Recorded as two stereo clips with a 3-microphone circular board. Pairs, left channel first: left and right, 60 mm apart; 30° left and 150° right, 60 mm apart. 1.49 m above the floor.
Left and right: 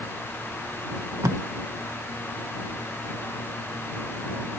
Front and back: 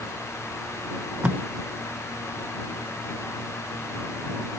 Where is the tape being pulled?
85° right.